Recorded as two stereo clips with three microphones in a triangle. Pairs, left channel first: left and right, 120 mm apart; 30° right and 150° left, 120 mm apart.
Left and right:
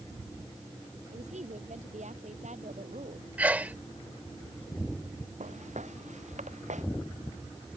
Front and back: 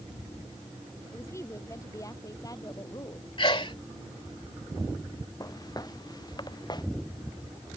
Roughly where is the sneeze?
Ahead.